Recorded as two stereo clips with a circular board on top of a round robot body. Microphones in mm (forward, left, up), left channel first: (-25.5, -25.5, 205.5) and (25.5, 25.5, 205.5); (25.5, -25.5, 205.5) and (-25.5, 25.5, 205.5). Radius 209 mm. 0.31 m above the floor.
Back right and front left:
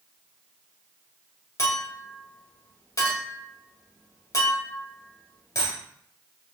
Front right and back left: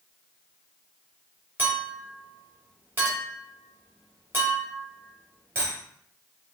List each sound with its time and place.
1.6 s a clink: 165° right, 1.8 m